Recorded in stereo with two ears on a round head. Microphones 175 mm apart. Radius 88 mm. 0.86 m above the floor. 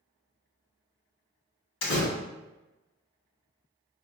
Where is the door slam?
70° left (ahead or behind), 1.4 m.